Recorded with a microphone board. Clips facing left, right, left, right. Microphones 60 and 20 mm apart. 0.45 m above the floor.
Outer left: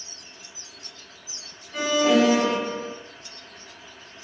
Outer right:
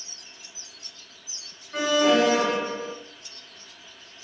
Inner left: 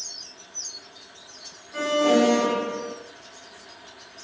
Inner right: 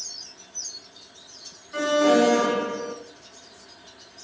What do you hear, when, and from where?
1.7 s an alarm: 50° right (ahead or behind), 4 m